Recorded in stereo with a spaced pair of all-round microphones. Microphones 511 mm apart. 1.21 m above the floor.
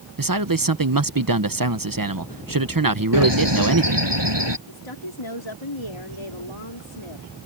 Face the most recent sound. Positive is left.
turn(degrees=65)  # may be behind; listen again after turning